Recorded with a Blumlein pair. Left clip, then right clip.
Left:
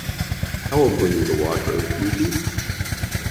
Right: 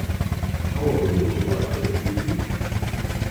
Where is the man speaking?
45° left, 4 m.